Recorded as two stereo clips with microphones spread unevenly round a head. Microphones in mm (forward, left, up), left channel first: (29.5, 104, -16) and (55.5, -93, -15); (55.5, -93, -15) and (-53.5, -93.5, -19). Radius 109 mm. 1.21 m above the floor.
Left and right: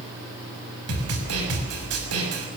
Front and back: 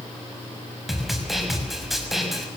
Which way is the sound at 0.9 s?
90° right.